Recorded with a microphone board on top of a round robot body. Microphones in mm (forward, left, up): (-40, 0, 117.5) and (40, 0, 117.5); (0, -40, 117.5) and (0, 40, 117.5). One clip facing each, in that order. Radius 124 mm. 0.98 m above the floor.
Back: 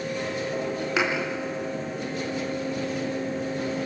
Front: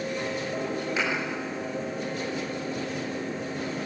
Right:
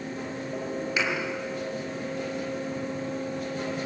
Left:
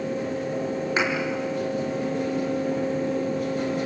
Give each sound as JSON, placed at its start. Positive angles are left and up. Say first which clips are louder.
{"t": 1.0, "sound": "a thud", "louder": "back 5 dB, left 3 dB", "azimuth_deg": 150, "distance_m": 4.5}